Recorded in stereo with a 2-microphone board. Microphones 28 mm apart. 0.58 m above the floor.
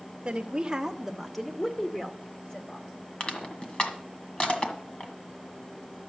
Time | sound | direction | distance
0.2 | a woman speaking | 35° right (ahead or behind) | 1.2 m
3.2 | crushing | 40° left (ahead or behind) | 1.7 m